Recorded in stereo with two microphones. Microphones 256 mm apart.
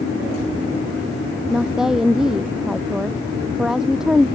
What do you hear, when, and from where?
1.5 s a woman speaking: centre (ahead or behind)